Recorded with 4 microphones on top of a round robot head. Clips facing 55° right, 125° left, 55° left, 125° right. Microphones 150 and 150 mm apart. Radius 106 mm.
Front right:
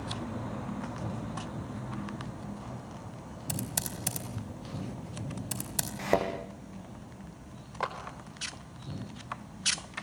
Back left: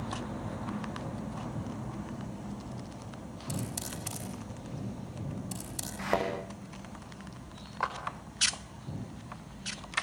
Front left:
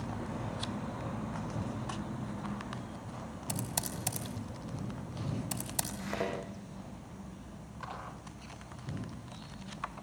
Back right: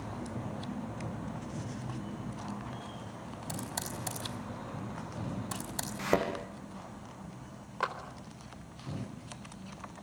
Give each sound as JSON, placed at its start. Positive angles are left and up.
{"t": 3.5, "sound": "typing on a keyboard", "azimuth_deg": -20, "distance_m": 4.5}
{"t": 6.0, "sound": "a thud", "azimuth_deg": -120, "distance_m": 4.5}
{"t": 7.8, "sound": "a clap", "azimuth_deg": -120, "distance_m": 4.0}